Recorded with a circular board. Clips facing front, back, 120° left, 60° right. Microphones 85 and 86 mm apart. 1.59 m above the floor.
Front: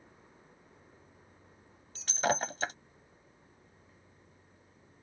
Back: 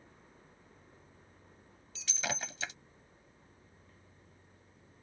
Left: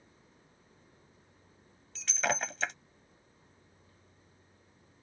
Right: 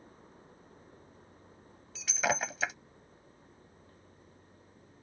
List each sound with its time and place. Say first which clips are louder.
1.9 s breaking glass: front 9 dB, right 1 dB; 25° left